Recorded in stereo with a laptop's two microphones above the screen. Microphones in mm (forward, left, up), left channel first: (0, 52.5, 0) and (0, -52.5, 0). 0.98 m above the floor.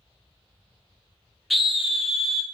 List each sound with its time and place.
1.5 s a scream: centre (ahead or behind), 0.5 m